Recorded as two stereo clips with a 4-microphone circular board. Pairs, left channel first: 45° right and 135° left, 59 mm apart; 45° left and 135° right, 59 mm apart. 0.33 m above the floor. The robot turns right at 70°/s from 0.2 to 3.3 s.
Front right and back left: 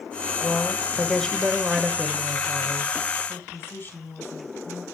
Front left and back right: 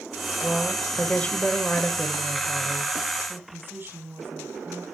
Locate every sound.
0.4 s a woman speaking: 30° right, 1.3 m; by 2.9 s 150° left, 1.3 m
3.3 s a woman speaking: 90° right, 3 m